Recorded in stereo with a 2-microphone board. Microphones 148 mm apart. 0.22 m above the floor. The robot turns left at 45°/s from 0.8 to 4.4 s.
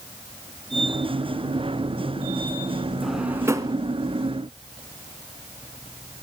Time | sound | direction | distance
3.0 | a drawer | centre (ahead or behind) | 0.9 m